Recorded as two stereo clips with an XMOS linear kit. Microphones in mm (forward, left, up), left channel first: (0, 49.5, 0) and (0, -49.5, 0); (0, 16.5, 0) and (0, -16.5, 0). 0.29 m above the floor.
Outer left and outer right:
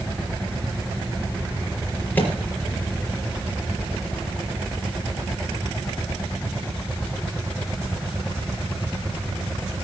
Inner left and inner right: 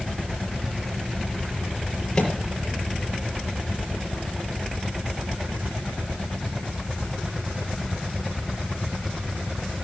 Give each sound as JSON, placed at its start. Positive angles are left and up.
{"t": 2.1, "sound": "a microwave", "side_deg": 15, "distance_m": 5.0}